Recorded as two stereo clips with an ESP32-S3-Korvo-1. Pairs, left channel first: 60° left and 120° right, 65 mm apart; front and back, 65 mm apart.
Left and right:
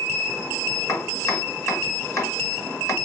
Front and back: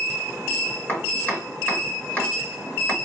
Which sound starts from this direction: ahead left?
Chopping, at 0.9 s.